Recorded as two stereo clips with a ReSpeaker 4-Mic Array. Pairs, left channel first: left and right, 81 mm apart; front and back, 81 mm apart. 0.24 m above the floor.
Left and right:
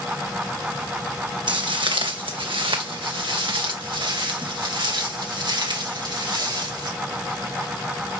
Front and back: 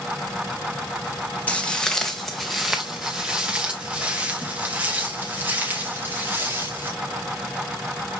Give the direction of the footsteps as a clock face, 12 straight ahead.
2 o'clock.